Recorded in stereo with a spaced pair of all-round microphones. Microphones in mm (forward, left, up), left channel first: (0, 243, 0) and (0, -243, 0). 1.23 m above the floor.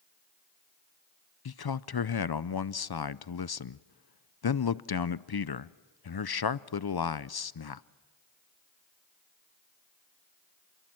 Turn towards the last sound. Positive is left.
turn(degrees=50)  # may be behind; listen again after turning